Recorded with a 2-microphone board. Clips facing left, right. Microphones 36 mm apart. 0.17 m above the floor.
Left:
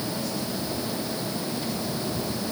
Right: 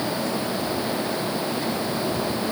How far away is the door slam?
No door slam in this recording.